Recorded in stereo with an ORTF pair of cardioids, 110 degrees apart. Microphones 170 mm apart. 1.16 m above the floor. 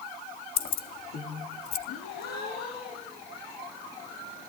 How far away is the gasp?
About 6 m.